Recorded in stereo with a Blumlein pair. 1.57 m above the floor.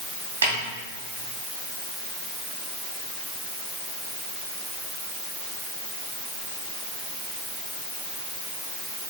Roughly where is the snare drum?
Ahead right.